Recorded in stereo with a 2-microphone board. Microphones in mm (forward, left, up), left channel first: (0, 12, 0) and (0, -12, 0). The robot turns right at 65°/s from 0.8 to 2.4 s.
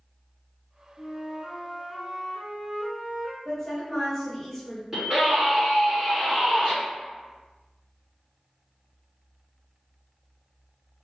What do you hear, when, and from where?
1.0 s a flute: 145° left, 1.2 m; by 3.4 s 125° right, 1.2 m
3.5 s a woman speaking: 5° left (ahead or behind), 1.7 m
4.9 s a scream: 25° right (ahead or behind), 1.8 m